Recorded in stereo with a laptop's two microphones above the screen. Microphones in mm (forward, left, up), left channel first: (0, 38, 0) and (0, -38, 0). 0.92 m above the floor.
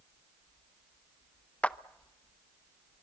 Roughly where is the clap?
Centre.